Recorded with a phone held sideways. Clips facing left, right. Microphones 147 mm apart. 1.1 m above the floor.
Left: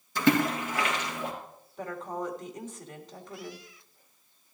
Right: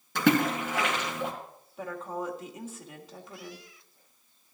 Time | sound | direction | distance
0.1 | a splash | 75° right (ahead or behind) | 3 m
1.8 | a woman speaking | 5° right (ahead or behind) | 1.9 m